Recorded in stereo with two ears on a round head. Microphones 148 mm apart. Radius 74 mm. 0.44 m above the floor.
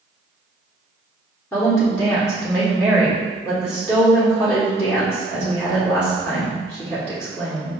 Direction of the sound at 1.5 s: 15° left (ahead or behind).